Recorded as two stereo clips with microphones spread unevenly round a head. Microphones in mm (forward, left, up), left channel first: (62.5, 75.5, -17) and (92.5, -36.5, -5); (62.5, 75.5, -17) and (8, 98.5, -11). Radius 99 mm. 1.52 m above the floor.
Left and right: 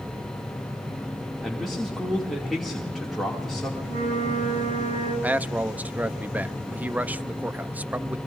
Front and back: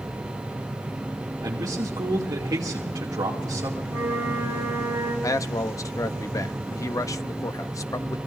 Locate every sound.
1.4 s a man speaking: 165° right, 2.5 m
3.8 s a flute: 80° right, 7 m
5.2 s a man speaking: 5° left, 0.8 m